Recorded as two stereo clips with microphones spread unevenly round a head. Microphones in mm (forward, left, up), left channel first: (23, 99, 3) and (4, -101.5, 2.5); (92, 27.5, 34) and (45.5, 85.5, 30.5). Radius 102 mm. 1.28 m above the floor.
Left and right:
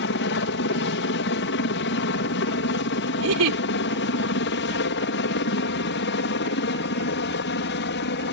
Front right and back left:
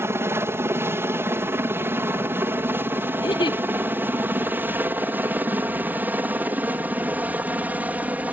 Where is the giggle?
90° right.